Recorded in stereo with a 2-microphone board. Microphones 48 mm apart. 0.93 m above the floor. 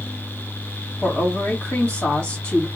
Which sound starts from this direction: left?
A woman speaking, at 1.0 s.